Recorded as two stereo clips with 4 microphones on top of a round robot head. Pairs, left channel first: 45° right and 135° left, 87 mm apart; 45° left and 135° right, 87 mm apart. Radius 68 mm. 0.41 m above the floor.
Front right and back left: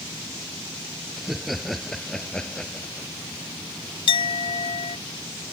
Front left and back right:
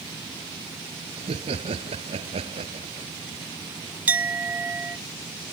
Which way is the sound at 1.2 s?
135° right.